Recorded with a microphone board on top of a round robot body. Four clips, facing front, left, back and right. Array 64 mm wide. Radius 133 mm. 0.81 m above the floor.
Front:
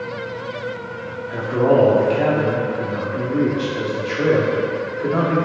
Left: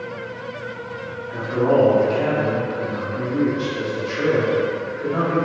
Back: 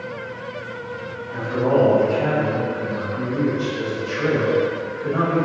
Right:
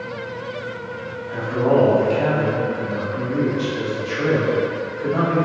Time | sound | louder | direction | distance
1.3 | a man speaking | even, front 3 dB | 10° left | 1.8 m